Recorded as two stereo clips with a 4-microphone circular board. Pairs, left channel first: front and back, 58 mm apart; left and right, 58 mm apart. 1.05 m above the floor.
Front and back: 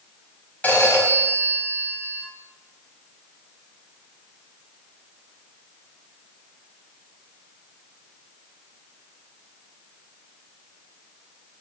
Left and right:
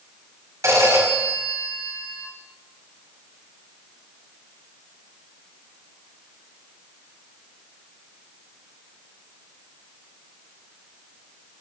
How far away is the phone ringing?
About 5 m.